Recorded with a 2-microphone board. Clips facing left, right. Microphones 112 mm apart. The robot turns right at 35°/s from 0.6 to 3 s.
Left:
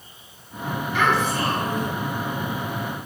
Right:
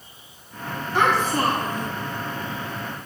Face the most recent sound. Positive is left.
turn(degrees=-75)